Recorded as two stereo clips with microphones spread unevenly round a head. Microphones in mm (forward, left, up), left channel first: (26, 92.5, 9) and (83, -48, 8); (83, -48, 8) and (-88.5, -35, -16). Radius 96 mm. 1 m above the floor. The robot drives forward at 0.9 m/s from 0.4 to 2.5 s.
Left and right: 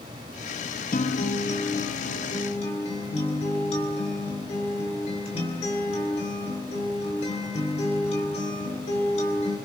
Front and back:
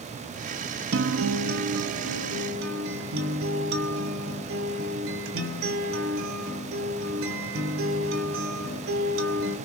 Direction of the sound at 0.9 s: 165° left.